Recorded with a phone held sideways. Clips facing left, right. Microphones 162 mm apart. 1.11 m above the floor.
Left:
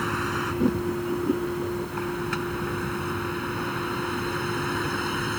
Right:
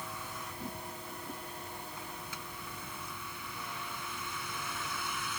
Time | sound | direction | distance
0.0 | a vehicle | 85° left | ?